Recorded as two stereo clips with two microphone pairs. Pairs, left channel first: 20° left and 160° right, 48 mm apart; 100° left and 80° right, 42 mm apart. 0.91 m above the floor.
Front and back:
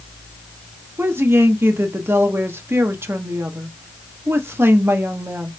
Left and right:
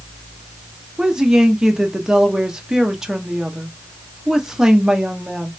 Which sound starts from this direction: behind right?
A woman speaking, at 1.0 s.